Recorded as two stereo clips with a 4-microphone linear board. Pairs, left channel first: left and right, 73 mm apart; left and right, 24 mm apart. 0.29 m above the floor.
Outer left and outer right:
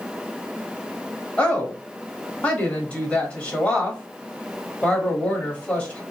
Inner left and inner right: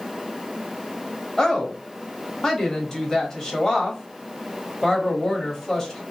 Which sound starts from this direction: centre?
A woman speaking, at 1.4 s.